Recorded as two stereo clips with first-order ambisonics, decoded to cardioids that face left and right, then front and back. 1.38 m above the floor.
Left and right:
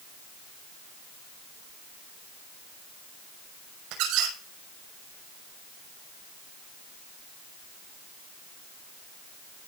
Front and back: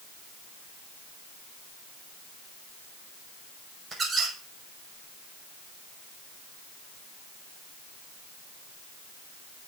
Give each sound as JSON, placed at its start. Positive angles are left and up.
{"t": 3.9, "sound": "a squeak", "azimuth_deg": -110, "distance_m": 5.5}